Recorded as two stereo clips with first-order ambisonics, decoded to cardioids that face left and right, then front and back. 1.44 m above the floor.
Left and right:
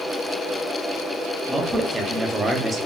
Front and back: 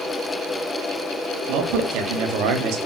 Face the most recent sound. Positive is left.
turn(degrees=-165)